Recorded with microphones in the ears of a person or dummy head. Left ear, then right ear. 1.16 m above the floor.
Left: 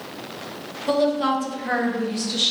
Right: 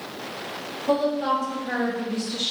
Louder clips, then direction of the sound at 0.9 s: Left 2 dB; 55° left (ahead or behind).